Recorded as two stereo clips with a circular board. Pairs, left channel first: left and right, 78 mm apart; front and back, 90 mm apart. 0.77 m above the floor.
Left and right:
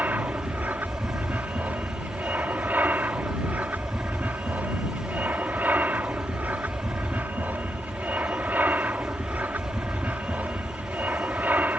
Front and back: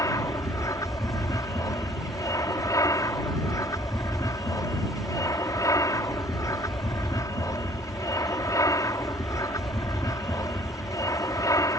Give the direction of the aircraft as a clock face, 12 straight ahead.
1 o'clock.